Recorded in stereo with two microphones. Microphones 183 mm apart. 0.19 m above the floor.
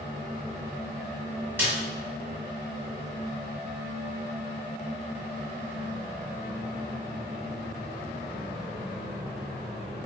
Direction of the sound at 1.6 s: 10° right (ahead or behind).